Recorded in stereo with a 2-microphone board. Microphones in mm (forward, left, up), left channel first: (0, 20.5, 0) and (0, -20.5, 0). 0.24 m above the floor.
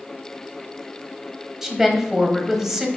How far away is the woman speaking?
About 1.2 m.